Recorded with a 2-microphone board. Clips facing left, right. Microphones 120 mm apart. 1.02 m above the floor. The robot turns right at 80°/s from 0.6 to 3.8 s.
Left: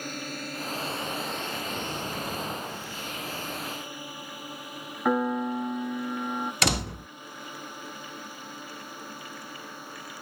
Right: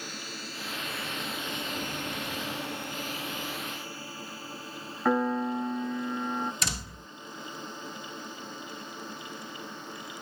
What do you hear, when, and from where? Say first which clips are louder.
0.0 s a drone: left 6 dB; 50° left (ahead or behind); by 10.2 s 10° left (ahead or behind)
5.0 s a piano: left 1 dB; 5° left (ahead or behind)
6.6 s a door slam: left 9 dB; 70° left (ahead or behind)